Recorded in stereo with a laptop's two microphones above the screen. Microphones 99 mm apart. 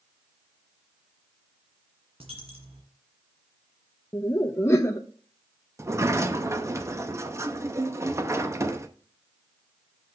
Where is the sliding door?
30° right (ahead or behind), 0.8 m.